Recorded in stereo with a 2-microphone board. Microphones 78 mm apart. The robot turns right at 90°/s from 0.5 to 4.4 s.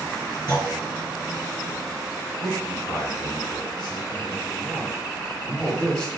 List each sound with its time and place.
0.5 s a clunk: 60° left (ahead or behind), 2.5 m; by 0.7 s 70° left (ahead or behind), 2.5 m
2.4 s a man speaking: 15° right, 4 m; by 6.1 s 165° left, 4 m